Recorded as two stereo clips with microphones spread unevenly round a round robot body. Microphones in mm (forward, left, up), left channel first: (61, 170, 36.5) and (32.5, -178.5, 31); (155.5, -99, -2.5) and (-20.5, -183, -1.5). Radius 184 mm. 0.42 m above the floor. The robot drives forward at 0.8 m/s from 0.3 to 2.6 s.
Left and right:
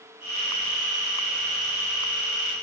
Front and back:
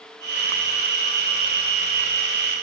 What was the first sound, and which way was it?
Only background noise.